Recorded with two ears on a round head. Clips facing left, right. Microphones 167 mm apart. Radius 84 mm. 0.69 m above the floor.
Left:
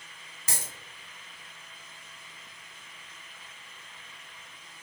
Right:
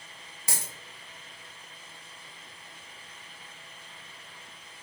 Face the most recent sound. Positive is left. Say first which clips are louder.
# right 1 dB
turn(degrees=-10)  # may be behind; listen again after turning